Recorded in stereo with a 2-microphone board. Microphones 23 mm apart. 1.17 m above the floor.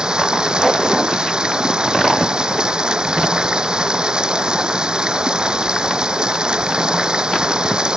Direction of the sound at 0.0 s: 40° right (ahead or behind).